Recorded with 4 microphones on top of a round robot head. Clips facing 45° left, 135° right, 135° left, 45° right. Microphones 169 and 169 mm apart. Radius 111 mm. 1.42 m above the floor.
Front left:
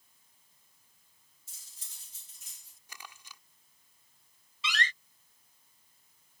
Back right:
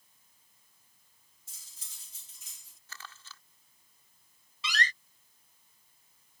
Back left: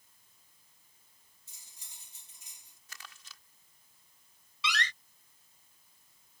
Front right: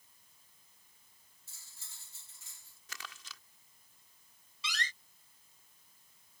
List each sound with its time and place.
1.5 s cutlery clinking: 150° right
2.9 s crumpling: 30° right
4.6 s a door slam: 170° left